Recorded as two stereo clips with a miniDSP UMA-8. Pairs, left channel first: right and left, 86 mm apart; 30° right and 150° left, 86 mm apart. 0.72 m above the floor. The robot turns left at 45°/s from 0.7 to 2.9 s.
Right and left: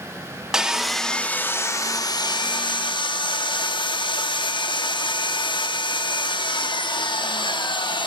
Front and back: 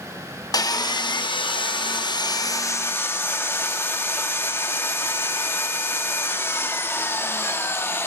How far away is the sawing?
About 0.8 m.